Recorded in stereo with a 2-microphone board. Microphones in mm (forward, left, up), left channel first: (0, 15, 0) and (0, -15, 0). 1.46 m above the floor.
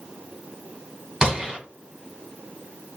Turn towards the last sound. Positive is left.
turn(degrees=-20)  # may be behind; listen again after turning